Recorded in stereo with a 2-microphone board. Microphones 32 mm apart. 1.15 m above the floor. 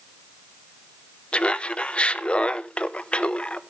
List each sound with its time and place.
1.3 s laughter: 35° left (ahead or behind), 0.8 m